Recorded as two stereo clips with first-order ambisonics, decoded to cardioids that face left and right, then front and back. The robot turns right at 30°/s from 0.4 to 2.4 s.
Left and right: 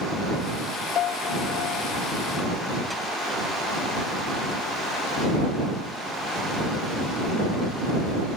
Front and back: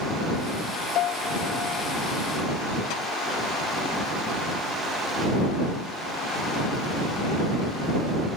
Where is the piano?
40° left; by 1.9 s 70° left.